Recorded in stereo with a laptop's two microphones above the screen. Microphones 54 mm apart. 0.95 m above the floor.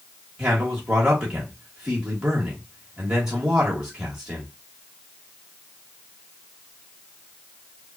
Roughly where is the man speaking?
Centre.